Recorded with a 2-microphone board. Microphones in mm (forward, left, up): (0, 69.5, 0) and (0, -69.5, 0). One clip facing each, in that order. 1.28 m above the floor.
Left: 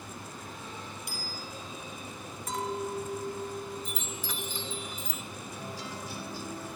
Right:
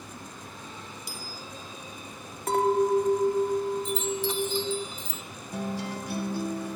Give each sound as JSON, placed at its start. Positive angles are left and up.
{"t": 1.1, "sound": "a bicycle bell", "side_deg": 60, "distance_m": 5.5}
{"t": 2.5, "sound": "a clink", "side_deg": -65, "distance_m": 1.8}
{"t": 3.9, "sound": "a chime", "side_deg": -25, "distance_m": 1.5}
{"t": 5.5, "sound": "a guitar", "side_deg": -60, "distance_m": 2.5}